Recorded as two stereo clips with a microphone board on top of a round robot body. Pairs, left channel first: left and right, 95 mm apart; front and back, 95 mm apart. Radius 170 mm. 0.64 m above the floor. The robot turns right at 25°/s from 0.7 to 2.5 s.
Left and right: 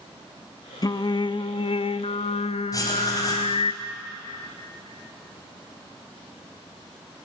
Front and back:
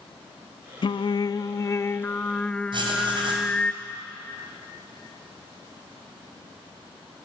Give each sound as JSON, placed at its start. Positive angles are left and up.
{"t": 0.8, "sound": "singing", "azimuth_deg": 40, "distance_m": 0.6}
{"t": 2.7, "sound": "writing", "azimuth_deg": 145, "distance_m": 4.0}